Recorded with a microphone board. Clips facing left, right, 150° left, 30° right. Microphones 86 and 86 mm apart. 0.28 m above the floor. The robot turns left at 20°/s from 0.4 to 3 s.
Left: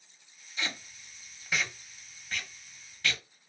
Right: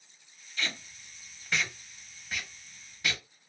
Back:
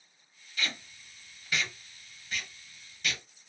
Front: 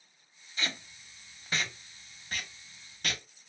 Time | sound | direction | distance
0.6 | tape being pulled | 25° left | 0.7 m